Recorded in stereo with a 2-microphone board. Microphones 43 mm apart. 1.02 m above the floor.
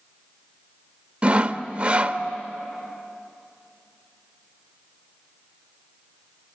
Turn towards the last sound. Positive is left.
turn(degrees=-30)  # may be behind; listen again after turning